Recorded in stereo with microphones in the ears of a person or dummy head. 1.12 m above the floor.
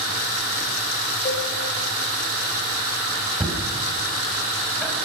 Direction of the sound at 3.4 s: Centre (ahead or behind).